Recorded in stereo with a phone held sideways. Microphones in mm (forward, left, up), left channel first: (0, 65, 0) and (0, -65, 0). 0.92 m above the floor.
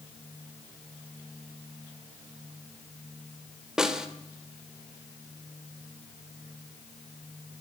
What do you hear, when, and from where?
3.8 s a snare drum: 5° right (ahead or behind), 2.5 m